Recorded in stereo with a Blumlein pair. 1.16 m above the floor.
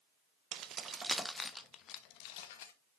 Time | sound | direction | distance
0.5 | keys jangling | 35° right | 0.8 m